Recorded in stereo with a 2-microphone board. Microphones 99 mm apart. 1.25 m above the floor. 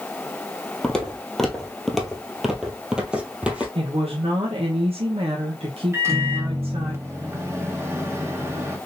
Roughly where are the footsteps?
Centre.